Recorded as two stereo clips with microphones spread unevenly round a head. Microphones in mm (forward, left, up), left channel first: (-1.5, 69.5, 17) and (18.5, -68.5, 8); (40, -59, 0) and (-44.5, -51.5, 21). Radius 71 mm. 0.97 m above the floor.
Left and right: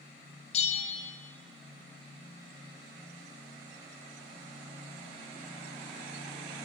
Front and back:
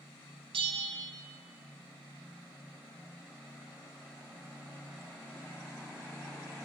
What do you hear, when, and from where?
0.5 s a bell: 140° left, 1.1 m